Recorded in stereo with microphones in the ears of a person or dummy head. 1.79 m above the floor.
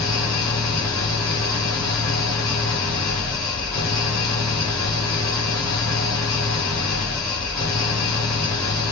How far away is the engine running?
About 3 m.